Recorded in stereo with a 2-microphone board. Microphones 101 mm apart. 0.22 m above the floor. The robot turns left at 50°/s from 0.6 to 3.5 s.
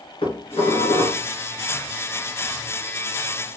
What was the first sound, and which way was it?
Dishes clattering, 100° left.